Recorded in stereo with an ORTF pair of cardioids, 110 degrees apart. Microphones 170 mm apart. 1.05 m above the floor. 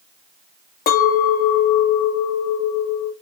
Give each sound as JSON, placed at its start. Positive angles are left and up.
{"t": 0.9, "sound": "a clink", "azimuth_deg": 65, "distance_m": 0.9}